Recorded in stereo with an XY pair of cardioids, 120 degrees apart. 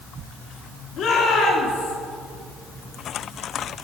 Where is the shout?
60° left, 3.5 m.